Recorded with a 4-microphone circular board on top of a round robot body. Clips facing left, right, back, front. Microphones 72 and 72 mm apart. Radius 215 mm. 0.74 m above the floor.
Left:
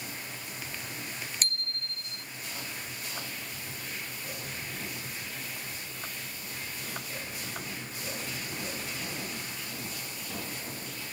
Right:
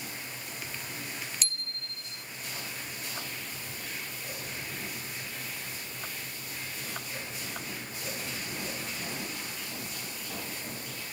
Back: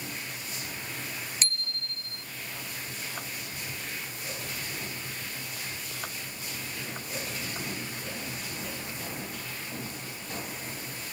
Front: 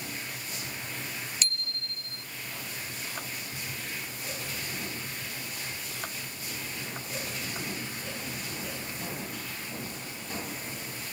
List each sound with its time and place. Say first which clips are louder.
1.4 s a bicycle bell: left 3 dB, back 1 dB; 130° left